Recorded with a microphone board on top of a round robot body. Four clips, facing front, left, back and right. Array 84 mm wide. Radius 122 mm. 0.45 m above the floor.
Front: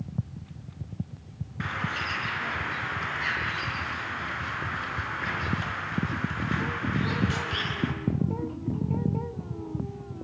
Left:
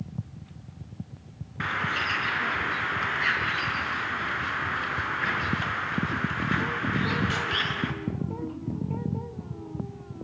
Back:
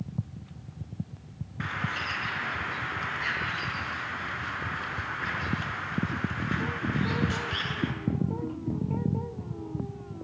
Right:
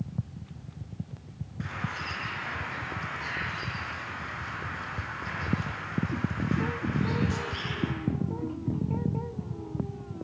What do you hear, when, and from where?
1.6 s a bird: 90° left, 5.5 m